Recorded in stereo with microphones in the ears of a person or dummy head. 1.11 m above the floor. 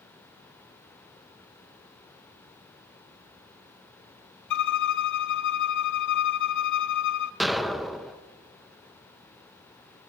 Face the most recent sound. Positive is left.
turn(degrees=0)  # may be behind; listen again after turning